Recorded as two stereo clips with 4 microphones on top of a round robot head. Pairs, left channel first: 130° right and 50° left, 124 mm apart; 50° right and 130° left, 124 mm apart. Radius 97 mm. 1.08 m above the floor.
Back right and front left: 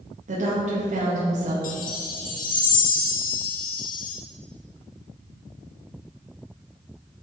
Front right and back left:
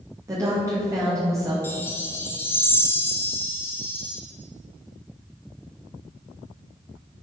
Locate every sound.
0.3 s a woman speaking: 65° left, 2 m
1.6 s a chime: 125° right, 1.1 m